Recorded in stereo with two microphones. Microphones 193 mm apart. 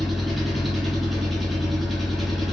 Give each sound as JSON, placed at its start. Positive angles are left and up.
{"t": 0.0, "sound": "an engine running", "side_deg": 0, "distance_m": 1.3}